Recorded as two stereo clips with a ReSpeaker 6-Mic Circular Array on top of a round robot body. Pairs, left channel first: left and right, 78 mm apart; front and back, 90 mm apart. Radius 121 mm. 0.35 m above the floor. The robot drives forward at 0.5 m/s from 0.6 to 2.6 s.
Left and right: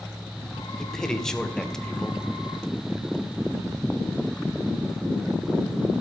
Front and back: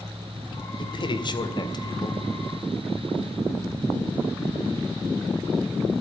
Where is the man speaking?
5° left, 2.5 m; by 2.2 s 10° left, 1.9 m.